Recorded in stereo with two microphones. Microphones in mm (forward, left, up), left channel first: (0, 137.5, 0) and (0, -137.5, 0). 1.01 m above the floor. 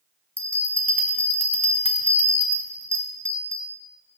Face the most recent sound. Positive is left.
turn(degrees=5)  # may be behind; listen again after turning